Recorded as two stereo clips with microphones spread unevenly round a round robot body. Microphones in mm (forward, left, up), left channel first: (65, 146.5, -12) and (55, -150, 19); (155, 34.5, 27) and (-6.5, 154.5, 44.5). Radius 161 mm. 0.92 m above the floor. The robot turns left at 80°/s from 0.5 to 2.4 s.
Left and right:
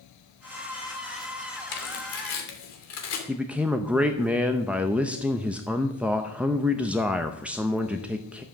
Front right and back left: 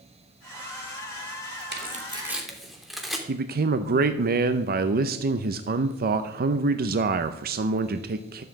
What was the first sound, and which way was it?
Tearing paper, 110° left.